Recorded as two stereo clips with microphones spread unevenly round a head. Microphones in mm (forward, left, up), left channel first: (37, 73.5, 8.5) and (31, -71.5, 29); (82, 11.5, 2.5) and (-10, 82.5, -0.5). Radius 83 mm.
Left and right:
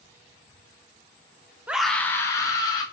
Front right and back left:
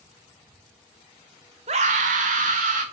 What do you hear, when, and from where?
1.7 s a scream: 175° right, 0.6 m; by 2.8 s 150° left, 1.5 m